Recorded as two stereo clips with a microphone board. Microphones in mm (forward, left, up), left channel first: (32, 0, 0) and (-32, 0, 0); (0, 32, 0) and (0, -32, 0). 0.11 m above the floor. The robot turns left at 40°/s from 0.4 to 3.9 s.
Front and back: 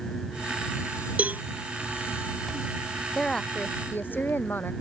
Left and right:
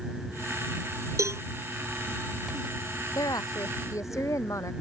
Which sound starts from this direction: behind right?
A cowbell, at 1.2 s.